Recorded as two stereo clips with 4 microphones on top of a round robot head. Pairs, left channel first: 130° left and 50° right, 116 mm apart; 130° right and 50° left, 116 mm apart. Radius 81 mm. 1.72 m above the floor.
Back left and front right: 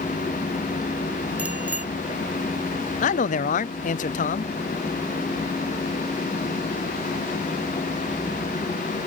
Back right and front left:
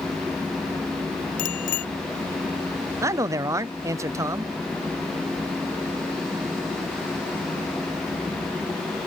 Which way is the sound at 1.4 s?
130° right.